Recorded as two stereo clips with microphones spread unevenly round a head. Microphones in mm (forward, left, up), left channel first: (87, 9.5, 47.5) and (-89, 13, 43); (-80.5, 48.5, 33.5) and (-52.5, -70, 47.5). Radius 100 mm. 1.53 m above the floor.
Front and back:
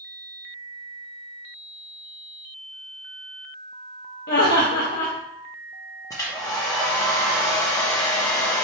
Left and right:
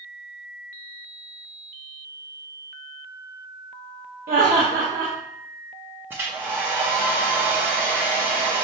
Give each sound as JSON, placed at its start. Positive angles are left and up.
{"t": 4.3, "sound": "laughter", "azimuth_deg": -35, "distance_m": 0.9}
{"t": 6.1, "sound": "a hair dryer", "azimuth_deg": -45, "distance_m": 0.5}